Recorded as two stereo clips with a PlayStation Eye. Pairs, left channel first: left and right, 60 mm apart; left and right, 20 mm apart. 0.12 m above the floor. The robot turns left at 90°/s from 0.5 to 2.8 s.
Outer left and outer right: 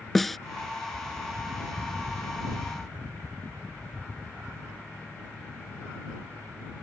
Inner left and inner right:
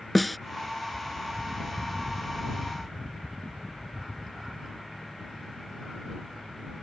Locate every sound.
0.1 s a snare drum: 5° left (ahead or behind)